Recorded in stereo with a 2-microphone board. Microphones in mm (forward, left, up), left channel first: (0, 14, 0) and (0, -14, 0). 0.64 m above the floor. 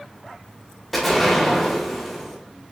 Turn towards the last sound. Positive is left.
turn(degrees=5)  # may be behind; listen again after turning